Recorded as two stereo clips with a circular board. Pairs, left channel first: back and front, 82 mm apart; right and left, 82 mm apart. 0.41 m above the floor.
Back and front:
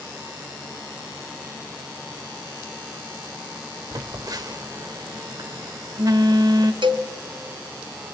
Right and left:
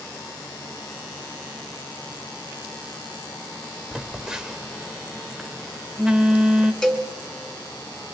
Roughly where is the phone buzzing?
Ahead.